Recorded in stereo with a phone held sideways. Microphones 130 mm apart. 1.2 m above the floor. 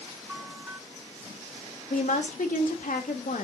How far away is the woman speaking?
About 2 m.